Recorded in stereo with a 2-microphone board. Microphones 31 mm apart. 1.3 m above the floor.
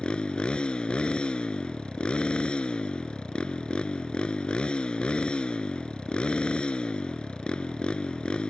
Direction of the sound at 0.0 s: 35° left (ahead or behind).